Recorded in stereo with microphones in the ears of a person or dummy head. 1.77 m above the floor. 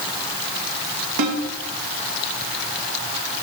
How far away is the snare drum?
About 2 m.